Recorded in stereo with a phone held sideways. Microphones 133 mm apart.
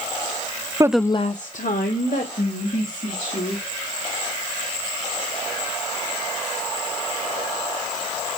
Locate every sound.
0.8 s a woman speaking: 25° right (ahead or behind), 0.5 m; by 3.6 s 80° left, 4 m